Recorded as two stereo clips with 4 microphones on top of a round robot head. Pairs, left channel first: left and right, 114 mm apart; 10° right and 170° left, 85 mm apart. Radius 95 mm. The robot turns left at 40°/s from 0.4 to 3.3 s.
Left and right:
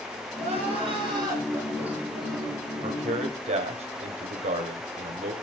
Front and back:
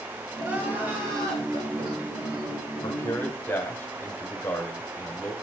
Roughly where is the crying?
Right.